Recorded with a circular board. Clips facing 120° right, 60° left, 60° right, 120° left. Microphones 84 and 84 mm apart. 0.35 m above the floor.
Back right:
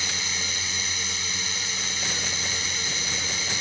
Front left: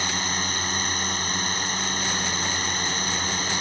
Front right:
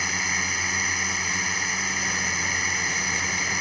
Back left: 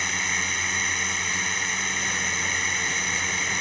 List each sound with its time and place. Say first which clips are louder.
0.0 s a drone: front left 5 dB, even; 25° left